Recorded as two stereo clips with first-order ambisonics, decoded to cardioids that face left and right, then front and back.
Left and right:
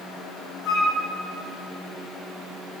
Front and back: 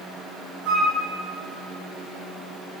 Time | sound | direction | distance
0.7 | a flute | 130° left | 2.5 m